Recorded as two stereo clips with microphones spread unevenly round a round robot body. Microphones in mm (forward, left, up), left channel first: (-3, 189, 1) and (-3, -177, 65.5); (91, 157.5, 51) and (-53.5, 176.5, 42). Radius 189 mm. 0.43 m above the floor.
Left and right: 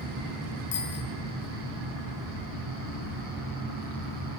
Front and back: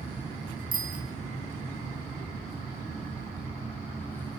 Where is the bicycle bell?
150° left, 4.5 m.